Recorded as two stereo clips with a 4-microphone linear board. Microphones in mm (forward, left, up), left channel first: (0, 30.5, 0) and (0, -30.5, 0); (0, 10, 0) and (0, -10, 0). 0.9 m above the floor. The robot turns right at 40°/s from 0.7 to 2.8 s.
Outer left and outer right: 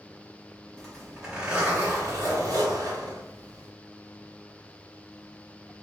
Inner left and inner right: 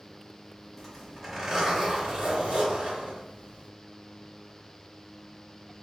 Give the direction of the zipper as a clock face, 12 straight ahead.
6 o'clock.